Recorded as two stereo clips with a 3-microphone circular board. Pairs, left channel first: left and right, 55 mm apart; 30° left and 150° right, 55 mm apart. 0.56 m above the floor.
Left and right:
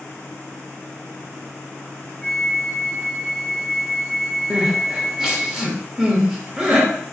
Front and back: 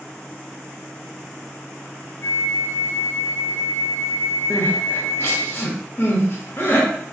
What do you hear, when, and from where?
2.2 s a flute: 15° left, 1.5 m
4.5 s crying: 10° right, 0.9 m